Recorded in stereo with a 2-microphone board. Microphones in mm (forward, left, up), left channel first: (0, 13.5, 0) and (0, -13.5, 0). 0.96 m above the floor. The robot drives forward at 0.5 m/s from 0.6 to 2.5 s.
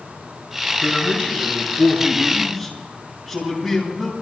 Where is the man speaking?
5° right (ahead or behind), 7 m.